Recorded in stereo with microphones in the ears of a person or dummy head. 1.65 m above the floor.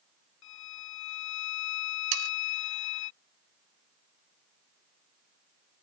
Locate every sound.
0.4 s a violin: 75° left (ahead or behind)
2.1 s sawing: 70° right (ahead or behind)